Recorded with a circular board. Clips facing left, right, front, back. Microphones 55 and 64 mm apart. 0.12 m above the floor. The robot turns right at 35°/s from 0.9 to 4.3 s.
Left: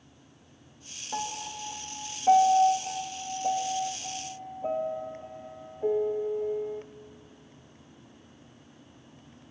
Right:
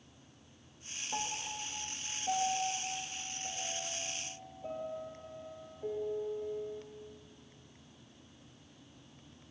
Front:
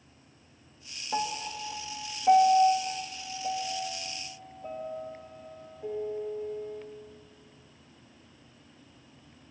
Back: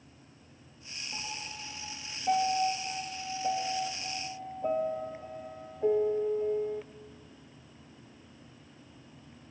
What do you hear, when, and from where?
1.1 s a piano: 20° left, 1.5 m; by 6.8 s 130° left, 1.5 m